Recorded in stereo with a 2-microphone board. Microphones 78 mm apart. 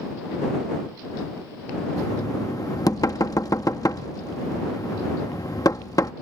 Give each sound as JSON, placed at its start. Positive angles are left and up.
{"t": 2.0, "sound": "knocking", "side_deg": 50}